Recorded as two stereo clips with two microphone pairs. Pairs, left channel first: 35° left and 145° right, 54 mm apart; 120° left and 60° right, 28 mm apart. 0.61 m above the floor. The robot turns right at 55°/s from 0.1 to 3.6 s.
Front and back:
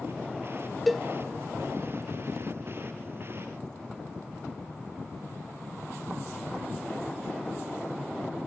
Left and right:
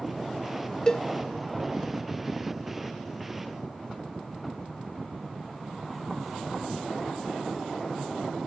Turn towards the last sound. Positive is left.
turn(degrees=-90)